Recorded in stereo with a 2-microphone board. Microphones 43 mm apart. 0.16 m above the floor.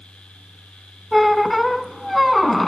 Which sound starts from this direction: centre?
A squeak, at 1.1 s.